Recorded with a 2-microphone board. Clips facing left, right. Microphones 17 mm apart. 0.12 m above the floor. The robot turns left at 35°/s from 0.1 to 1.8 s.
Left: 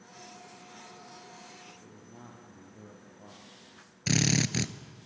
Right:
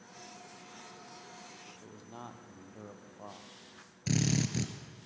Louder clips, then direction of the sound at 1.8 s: Right 3 dB; 65° right (ahead or behind).